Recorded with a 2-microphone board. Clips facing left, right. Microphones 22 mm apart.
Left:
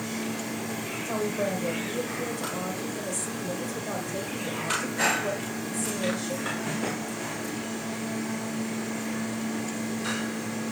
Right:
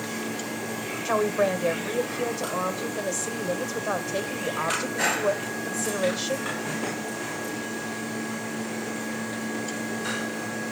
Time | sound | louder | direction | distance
1.1 | a woman speaking | right 6 dB | 50° right (ahead or behind) | 1.7 m